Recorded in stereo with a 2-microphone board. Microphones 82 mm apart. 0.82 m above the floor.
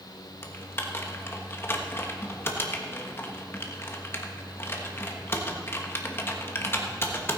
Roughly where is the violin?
I don't hear a violin.